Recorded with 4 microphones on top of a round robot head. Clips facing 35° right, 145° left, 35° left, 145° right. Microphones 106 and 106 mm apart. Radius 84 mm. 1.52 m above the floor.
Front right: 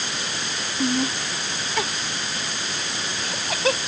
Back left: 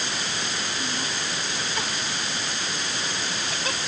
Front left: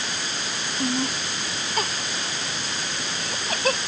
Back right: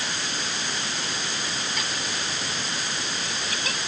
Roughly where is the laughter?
Ahead.